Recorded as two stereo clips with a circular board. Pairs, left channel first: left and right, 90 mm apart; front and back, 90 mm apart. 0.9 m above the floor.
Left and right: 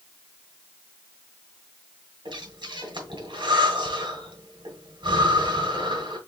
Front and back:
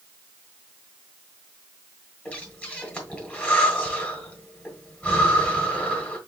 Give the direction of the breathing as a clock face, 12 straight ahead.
2 o'clock.